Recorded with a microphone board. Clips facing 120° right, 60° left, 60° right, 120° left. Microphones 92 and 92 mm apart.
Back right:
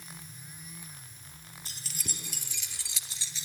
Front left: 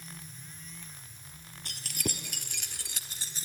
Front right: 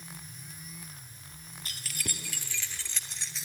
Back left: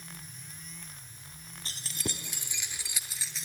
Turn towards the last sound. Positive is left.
turn(degrees=30)